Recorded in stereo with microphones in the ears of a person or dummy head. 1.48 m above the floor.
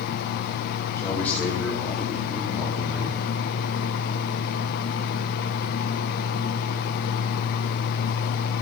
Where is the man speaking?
15° left (ahead or behind), 2.5 m; by 3.2 s 10° right (ahead or behind), 4 m.